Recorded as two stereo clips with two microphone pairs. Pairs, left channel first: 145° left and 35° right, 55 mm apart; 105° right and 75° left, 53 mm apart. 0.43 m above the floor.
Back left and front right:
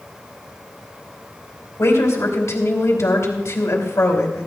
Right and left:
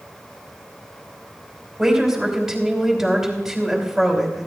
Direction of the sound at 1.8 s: 160° left.